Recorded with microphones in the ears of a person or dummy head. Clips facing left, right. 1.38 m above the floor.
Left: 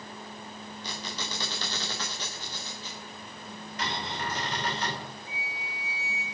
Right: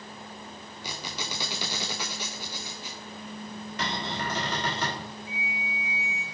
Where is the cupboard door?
50° right (ahead or behind), 3.5 m.